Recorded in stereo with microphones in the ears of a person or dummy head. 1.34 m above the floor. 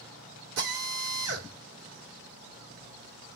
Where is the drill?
65° right (ahead or behind), 1.7 m.